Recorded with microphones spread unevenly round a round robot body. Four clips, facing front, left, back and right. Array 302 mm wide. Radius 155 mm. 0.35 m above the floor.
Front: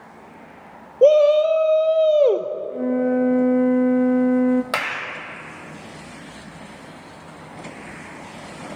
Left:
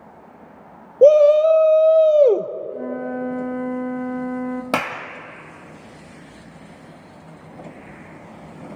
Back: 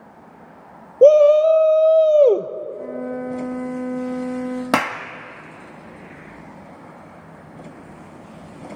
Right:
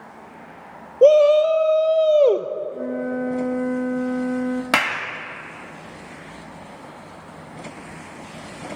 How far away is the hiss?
I don't hear a hiss.